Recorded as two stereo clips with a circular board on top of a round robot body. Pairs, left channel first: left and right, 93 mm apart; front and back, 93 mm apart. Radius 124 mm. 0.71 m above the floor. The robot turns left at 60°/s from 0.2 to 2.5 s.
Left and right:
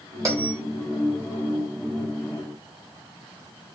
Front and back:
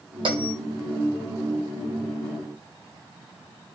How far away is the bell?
About 5.5 m.